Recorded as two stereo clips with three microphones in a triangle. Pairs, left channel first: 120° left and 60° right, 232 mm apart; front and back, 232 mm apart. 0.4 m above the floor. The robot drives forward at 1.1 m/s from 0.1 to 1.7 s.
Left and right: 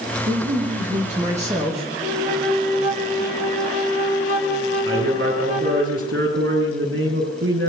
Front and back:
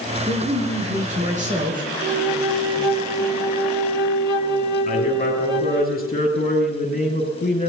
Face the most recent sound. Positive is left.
turn(degrees=-50)